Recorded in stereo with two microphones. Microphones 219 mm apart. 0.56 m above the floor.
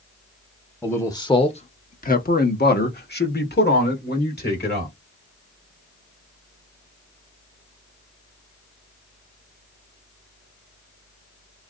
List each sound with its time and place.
0.8 s a man speaking: 10° left (ahead or behind), 0.9 m; by 4.9 s 45° left (ahead or behind), 2 m